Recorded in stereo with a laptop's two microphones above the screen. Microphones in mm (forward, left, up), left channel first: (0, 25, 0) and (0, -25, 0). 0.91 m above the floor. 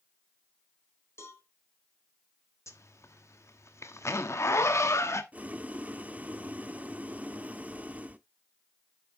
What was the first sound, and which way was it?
A cowbell, 65° left (ahead or behind).